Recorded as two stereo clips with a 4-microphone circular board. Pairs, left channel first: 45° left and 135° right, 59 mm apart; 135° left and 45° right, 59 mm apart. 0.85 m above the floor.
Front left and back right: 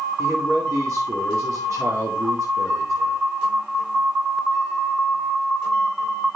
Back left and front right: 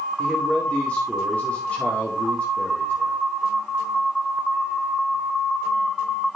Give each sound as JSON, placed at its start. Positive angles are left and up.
{"t": 0.2, "sound": "a man speaking", "azimuth_deg": -160, "distance_m": 2.0}